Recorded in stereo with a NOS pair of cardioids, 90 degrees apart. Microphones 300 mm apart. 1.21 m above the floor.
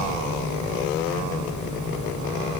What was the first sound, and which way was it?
A fan, 70° left.